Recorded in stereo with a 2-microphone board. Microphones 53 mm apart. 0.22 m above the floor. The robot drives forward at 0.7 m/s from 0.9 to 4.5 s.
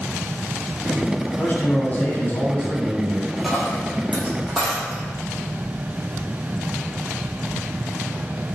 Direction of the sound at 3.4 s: Centre (ahead or behind).